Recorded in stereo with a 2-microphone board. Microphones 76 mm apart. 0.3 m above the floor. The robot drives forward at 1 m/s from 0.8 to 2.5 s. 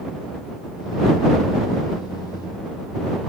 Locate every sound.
Only background noise.